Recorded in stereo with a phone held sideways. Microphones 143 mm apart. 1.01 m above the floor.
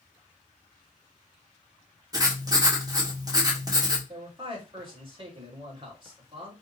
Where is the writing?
25° right (ahead or behind), 1.5 m.